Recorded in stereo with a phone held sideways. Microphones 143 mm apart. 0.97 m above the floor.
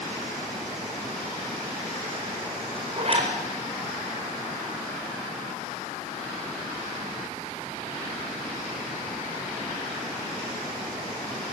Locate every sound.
3.0 s a zipper: 45° right (ahead or behind), 4.5 m